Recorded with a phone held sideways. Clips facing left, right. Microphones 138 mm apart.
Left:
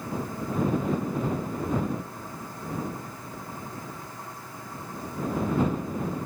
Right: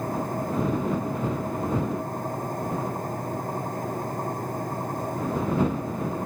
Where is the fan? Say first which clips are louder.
Right 4 dB; 45° right (ahead or behind).